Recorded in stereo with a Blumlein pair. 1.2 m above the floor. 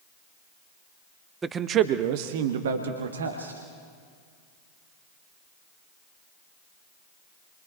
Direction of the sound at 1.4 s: 15° right.